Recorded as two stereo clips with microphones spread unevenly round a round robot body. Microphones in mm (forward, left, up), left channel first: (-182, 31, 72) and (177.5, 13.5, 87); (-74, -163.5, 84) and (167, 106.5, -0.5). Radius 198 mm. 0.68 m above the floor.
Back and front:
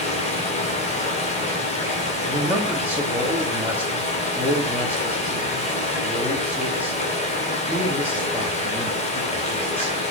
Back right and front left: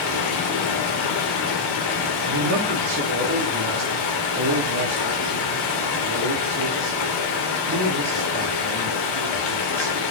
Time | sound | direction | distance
0.0 | running water | 110° right | 2.5 m
2.3 | a man speaking | 85° left | 1.7 m